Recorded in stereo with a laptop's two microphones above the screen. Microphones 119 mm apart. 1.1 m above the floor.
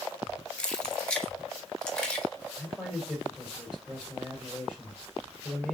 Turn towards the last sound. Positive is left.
turn(degrees=5)  # may be behind; listen again after turning